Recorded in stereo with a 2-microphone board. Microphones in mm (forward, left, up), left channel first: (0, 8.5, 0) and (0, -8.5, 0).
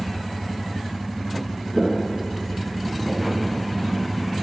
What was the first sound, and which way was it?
Footsteps, centre (ahead or behind).